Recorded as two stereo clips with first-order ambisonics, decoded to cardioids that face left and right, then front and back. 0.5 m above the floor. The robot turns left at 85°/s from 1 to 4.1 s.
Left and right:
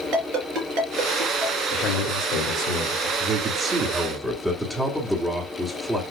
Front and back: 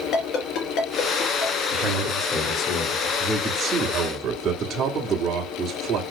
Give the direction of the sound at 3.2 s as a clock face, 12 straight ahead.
3 o'clock.